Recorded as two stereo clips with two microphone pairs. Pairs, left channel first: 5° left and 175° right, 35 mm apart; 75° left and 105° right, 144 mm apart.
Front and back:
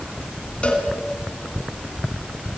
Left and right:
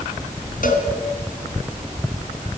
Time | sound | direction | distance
0.6 | a cowbell | 55° left | 3.5 m